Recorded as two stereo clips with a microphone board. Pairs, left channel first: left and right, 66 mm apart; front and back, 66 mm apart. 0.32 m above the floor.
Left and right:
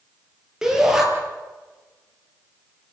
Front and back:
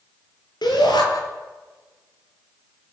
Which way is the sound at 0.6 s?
5° right.